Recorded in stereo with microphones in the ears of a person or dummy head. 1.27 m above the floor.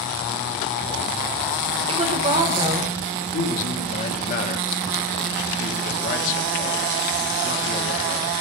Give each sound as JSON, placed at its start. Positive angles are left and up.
{"t": 1.9, "sound": "a woman speaking", "side_deg": -30, "distance_m": 1.2}
{"t": 3.3, "sound": "a man speaking", "side_deg": 45, "distance_m": 1.1}